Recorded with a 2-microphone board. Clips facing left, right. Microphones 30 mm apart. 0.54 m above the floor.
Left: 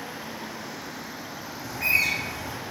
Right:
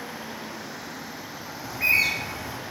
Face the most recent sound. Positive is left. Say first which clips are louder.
# right 2 dB
turn(degrees=-20)  # may be behind; listen again after turning